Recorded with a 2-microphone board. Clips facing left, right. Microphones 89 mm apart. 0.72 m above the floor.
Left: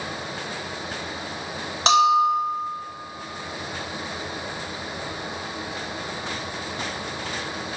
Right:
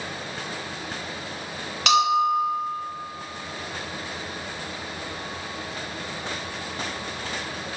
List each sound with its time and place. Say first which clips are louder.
1.9 s a bell: left 3 dB; 30° left (ahead or behind), 3.5 m